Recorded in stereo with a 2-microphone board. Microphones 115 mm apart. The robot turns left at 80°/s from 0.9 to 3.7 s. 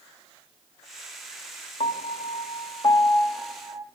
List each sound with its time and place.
1.8 s a piano: 60° left (ahead or behind), 0.5 m; by 3.9 s 35° right (ahead or behind), 0.5 m